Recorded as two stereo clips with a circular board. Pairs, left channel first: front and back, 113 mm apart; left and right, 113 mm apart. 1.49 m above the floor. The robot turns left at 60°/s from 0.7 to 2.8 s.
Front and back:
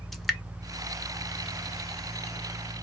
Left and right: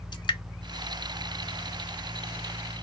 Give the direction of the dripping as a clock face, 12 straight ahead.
9 o'clock.